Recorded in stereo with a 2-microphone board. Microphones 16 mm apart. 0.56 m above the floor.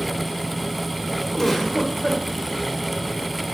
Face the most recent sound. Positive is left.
turn(degrees=20)  # may be behind; listen again after turning